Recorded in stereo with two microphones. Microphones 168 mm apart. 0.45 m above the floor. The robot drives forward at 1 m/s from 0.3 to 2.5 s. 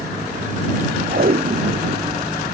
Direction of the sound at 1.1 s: 55° right (ahead or behind).